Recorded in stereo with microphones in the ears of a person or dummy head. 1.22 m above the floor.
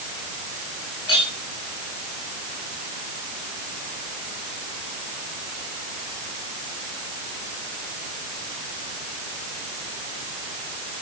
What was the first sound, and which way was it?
A clink, 30° left (ahead or behind).